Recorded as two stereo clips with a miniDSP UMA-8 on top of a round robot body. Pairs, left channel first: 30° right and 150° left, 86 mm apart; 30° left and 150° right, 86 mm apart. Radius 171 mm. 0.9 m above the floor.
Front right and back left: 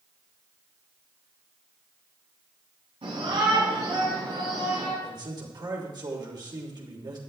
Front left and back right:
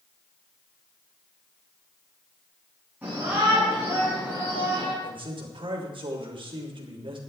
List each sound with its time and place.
3.0 s a shout: 135° left, 8 m; by 4.9 s 125° left, 7.5 m
5.0 s a man speaking: 170° right, 3 m